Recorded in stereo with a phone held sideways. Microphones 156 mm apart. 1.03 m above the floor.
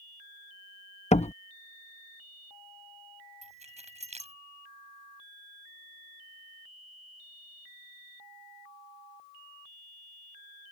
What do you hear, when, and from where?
1.1 s a door slam: 45° left (ahead or behind)
3.4 s keys jangling: 45° right (ahead or behind)